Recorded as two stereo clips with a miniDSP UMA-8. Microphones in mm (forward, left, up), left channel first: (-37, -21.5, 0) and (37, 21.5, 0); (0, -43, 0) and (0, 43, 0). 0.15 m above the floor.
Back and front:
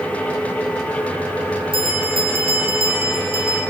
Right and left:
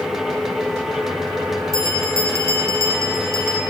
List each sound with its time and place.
1.7 s a bell: 40° left, 9 m